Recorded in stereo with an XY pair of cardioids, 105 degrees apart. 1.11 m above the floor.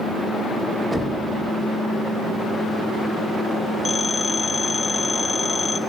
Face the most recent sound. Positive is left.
turn(degrees=30)